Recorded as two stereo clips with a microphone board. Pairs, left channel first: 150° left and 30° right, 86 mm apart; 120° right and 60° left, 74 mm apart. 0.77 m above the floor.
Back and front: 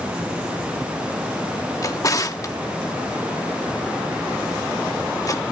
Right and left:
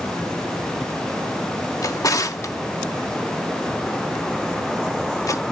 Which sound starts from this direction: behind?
A drawer, at 1.8 s.